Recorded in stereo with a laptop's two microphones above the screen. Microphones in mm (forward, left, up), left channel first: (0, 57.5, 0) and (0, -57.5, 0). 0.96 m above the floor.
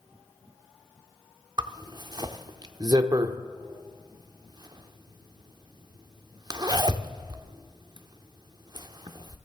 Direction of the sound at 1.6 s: 40° right (ahead or behind).